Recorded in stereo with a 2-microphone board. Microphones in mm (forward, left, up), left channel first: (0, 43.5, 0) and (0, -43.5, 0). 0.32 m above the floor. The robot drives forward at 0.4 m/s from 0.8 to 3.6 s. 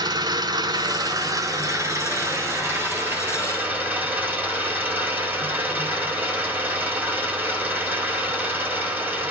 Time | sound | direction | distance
0.0 | an engine running | 50° right (ahead or behind) | 0.8 m